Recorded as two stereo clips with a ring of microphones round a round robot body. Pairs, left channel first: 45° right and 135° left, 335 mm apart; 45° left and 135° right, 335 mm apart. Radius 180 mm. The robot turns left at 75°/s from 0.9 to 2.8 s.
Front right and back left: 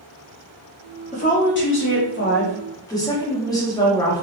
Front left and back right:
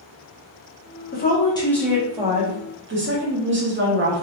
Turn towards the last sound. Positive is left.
turn(degrees=-115)